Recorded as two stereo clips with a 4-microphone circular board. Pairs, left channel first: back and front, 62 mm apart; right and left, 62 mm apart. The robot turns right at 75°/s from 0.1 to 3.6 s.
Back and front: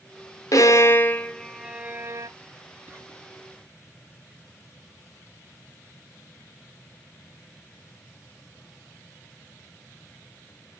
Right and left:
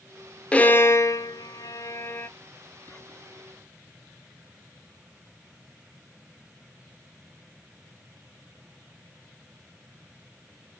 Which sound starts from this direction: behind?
A violin, at 0.5 s.